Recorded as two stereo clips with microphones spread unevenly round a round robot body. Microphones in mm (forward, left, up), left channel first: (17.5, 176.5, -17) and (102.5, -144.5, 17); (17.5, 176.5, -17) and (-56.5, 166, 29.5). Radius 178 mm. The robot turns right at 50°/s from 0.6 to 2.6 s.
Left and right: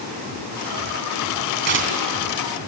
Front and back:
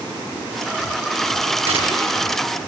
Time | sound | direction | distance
1.6 | tearing paper | 140° right | 3 m